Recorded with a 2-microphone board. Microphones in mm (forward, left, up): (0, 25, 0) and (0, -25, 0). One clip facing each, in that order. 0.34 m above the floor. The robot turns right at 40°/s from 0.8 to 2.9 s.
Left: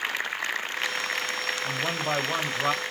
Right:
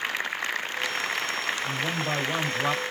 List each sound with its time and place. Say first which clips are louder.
1.6 s a man speaking: even; 135° left, 1.0 m; by 2.8 s straight behind, 1.0 m